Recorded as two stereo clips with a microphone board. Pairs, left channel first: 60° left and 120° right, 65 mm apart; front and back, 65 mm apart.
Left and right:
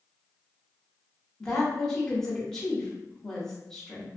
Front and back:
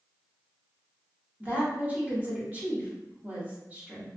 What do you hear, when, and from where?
1.4 s a woman speaking: 135° left, 0.9 m